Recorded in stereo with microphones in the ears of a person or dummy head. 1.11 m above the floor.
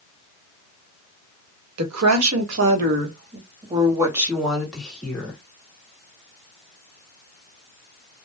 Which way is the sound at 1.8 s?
80° right.